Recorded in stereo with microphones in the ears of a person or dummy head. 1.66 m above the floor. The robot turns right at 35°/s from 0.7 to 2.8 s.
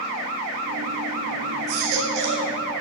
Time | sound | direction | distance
1.7 | a baby crying | 55° right (ahead or behind) | 3 m